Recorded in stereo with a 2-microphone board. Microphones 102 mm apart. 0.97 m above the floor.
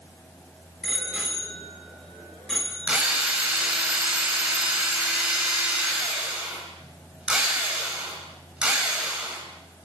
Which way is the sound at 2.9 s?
10° right (ahead or behind).